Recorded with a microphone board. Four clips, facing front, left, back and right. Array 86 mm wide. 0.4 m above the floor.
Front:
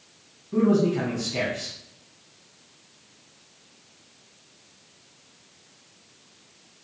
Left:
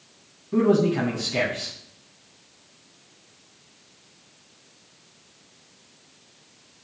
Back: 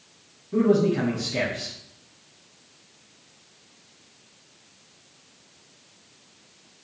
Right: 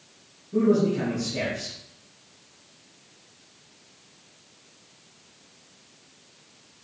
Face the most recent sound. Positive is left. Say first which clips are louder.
# left 2 dB, back 1 dB
turn(degrees=75)